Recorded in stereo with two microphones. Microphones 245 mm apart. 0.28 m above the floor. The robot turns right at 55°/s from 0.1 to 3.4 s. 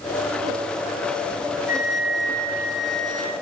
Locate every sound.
1.7 s a flute: 115° right, 8 m; by 3.3 s 25° right, 8 m